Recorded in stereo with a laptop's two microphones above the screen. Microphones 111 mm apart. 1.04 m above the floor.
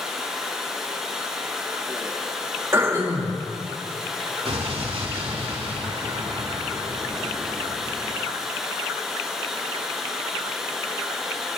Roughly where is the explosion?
Right.